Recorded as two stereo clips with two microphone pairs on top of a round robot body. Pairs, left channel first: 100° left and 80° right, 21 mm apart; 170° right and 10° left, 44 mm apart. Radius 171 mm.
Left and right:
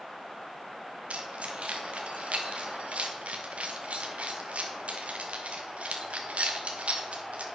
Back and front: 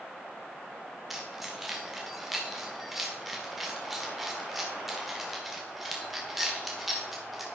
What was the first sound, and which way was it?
Keys jangling, 75° right.